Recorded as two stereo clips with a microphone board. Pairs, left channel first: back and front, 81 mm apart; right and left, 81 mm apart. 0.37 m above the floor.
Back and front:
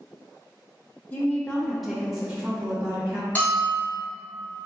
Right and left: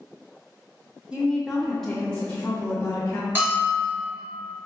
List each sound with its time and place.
1.1 s a woman speaking: 150° left, 1.0 m; by 3.2 s 50° right, 1.3 m
3.4 s a bell: 130° left, 1.6 m